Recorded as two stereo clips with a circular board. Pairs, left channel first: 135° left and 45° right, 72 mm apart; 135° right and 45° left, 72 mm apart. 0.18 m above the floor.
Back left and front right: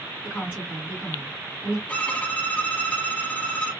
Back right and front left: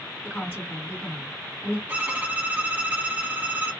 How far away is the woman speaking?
About 1.9 m.